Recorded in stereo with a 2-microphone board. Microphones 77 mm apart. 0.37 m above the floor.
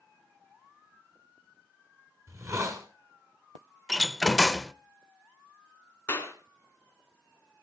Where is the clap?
30° left (ahead or behind), 3 m.